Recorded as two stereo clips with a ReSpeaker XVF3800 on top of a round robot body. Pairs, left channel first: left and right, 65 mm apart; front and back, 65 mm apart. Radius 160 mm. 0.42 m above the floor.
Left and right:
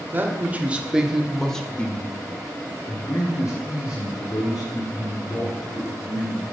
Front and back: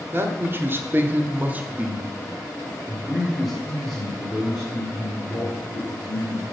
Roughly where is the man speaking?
Behind right.